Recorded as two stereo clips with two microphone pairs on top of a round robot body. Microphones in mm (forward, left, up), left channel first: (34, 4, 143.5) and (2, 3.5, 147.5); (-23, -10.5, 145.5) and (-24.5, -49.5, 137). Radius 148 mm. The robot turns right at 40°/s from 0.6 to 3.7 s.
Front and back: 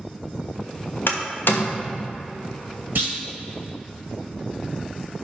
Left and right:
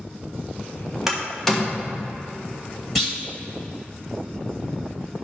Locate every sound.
1.1 s a door slam: 15° right, 1.1 m; by 2.0 s 20° left, 1.1 m
3.0 s a clunk: 155° left, 1.1 m; by 3.2 s 165° left, 1.1 m